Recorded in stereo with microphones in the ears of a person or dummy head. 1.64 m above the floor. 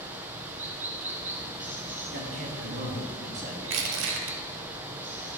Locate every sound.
0.0 s running water: 10° right (ahead or behind), 0.8 m
2.1 s a man speaking: 65° right (ahead or behind), 2 m
3.6 s crushing: 80° right, 1.1 m